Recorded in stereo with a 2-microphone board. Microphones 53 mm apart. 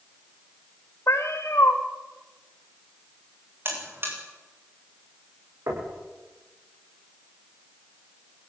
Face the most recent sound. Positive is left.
turn(degrees=-80)